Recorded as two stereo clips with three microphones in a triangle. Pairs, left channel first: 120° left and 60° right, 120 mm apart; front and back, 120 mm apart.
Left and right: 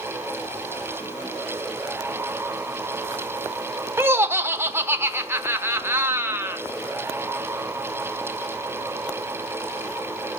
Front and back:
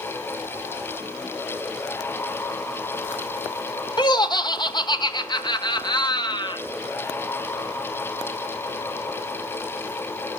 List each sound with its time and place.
4.0 s laughter: 5° right, 1.0 m